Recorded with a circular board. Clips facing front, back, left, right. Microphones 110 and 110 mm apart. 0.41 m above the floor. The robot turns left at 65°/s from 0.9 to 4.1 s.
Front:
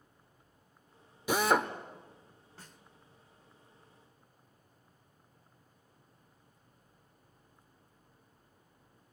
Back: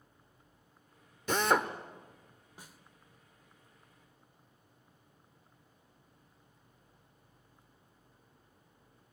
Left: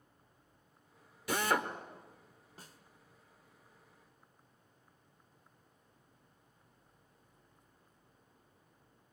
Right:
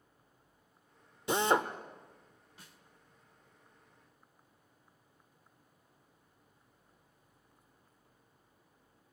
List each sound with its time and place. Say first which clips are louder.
1.3 s a drill: front 1 dB, right 4 dB; 65° right, 1.2 m; by 1.7 s 95° right, 1.2 m
2.6 s a snare drum: back 1 dB, left 3 dB; 110° left, 1.3 m; by 2.8 s 95° left, 1.3 m